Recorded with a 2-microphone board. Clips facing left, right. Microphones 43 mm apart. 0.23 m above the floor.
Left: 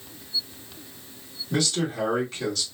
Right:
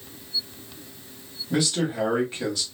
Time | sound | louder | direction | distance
1.5 | a man speaking | right 1 dB | 15° right (ahead or behind) | 1.5 m